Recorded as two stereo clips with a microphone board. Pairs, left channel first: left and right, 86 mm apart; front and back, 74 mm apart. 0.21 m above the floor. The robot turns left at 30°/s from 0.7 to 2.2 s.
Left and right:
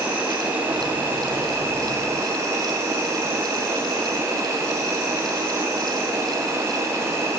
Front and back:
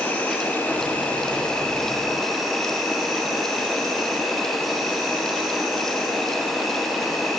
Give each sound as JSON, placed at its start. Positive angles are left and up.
{"t": 0.0, "sound": "an insect", "azimuth_deg": -40, "distance_m": 1.6}